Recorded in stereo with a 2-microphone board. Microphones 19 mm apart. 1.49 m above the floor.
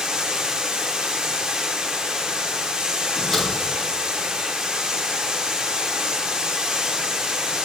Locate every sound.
0.0 s running water: 55° right (ahead or behind), 0.8 m
3.1 s a door slam: 15° left (ahead or behind), 2.5 m